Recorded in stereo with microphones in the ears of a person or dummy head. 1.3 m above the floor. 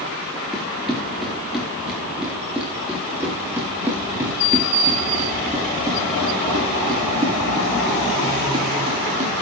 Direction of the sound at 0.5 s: Centre (ahead or behind).